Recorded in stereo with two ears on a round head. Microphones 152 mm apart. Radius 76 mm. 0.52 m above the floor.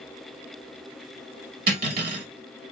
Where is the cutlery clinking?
55° right (ahead or behind), 0.8 m.